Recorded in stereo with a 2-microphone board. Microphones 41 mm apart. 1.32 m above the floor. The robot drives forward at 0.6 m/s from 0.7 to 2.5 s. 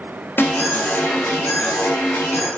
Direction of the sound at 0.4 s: 65° left (ahead or behind).